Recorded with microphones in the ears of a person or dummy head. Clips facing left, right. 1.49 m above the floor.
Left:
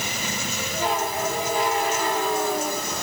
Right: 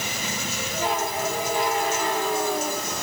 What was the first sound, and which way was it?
Only background noise.